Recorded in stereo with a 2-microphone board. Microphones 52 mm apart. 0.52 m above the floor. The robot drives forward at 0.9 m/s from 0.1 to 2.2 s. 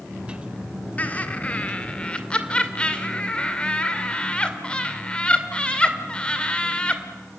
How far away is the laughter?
About 1.6 m.